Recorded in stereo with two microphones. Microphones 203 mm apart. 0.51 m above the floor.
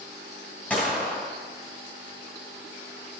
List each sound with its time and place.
0.7 s a gunshot: 10° left (ahead or behind), 2.5 m